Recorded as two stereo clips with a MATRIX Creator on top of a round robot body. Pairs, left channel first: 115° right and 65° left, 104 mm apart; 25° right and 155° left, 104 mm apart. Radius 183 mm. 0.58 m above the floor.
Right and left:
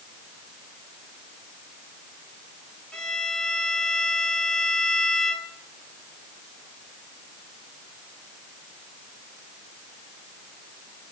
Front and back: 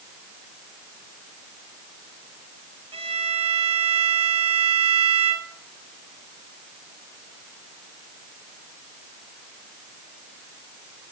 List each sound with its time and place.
2.9 s a violin: 165° left, 2 m